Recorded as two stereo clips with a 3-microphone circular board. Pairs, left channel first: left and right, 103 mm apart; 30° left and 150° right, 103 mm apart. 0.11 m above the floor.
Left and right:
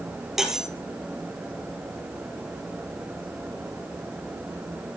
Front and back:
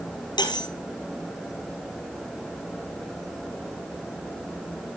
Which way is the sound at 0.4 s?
5° right.